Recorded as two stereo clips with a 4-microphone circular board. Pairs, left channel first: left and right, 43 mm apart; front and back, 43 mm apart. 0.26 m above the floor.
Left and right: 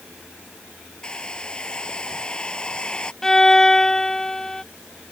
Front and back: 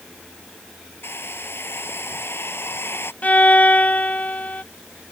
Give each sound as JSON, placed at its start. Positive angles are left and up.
{"t": 1.0, "sound": "a hair dryer", "azimuth_deg": 20}
{"t": 3.2, "sound": "a violin", "azimuth_deg": 20}